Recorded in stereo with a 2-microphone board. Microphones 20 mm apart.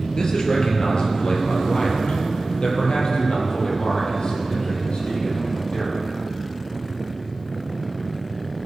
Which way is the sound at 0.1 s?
45° left (ahead or behind).